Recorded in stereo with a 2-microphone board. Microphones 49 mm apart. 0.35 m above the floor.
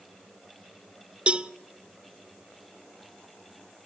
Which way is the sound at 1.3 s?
20° right (ahead or behind).